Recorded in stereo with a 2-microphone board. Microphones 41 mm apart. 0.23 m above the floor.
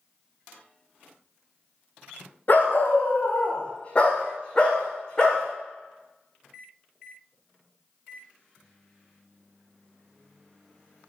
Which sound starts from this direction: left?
A dog barking, at 2.5 s.